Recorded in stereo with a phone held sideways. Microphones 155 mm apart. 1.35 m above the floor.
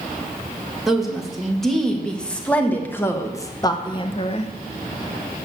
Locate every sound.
0.9 s a woman speaking: 5° right (ahead or behind), 2.5 m; by 4.5 s 45° left (ahead or behind), 1.0 m